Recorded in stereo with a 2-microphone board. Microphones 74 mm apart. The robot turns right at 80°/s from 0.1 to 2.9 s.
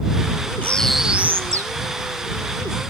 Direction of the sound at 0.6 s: 155° left.